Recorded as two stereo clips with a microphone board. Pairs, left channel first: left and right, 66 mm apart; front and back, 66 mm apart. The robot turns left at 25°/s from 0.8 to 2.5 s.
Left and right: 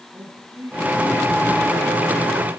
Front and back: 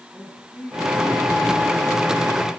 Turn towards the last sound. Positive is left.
turn(degrees=-120)